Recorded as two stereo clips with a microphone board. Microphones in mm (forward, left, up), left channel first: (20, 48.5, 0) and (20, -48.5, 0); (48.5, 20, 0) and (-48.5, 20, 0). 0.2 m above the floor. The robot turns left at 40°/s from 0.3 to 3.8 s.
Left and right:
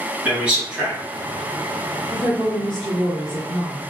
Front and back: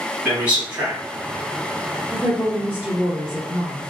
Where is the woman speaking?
175° right, 1.5 m; by 3.9 s 120° left, 1.5 m.